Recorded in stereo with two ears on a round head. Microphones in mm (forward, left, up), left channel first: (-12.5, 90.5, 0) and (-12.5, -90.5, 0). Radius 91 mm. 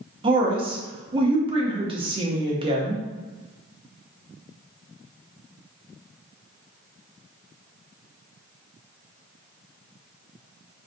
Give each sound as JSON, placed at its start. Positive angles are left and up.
{"t": 0.2, "sound": "a woman speaking", "side_deg": -25, "distance_m": 0.7}